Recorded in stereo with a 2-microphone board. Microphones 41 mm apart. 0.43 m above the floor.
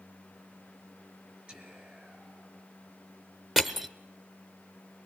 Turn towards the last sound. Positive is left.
turn(degrees=-5)  # may be behind; listen again after turning